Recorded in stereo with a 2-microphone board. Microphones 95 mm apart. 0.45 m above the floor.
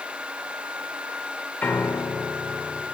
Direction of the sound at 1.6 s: 20° left (ahead or behind).